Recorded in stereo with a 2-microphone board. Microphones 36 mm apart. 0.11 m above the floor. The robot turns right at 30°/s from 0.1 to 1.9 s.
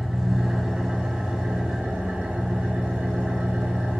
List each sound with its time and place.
0.0 s an engine running: 165° right, 0.9 m; by 4.0 s 110° right, 0.9 m